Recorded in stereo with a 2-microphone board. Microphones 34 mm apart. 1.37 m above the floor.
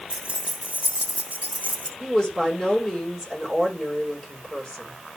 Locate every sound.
0.1 s keys jangling: 30° right (ahead or behind), 1.5 m; by 1.9 s 50° right (ahead or behind), 3 m
2.0 s a woman speaking: 10° left (ahead or behind), 6 m